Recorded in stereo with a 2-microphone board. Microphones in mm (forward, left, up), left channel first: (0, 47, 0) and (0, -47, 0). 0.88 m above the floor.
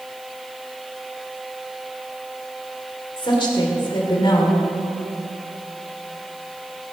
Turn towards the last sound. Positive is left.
turn(degrees=60)  # may be behind; listen again after turning